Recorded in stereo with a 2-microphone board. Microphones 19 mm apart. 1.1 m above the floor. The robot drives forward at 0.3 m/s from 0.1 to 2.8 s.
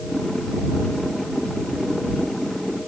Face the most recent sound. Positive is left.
No sound to turn to.